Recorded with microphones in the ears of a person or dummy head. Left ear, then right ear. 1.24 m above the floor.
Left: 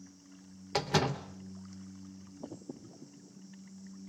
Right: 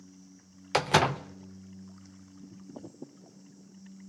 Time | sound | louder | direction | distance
0.7 | a door slam | right 6 dB | 30° right (ahead or behind) | 0.5 m